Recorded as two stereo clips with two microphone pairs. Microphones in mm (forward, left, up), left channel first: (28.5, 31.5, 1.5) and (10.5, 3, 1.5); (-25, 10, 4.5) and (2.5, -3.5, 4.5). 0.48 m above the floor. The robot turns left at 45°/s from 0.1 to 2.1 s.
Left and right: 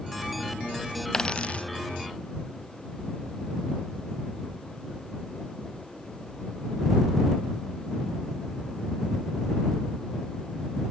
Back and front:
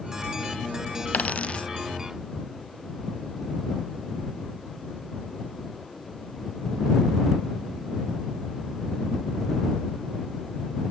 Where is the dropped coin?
125° left; by 1.6 s 100° left.